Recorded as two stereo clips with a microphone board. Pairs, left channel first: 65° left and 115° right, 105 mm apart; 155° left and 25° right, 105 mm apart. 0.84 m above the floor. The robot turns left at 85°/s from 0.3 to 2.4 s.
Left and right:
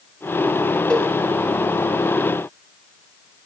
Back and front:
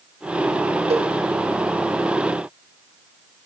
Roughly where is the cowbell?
Ahead.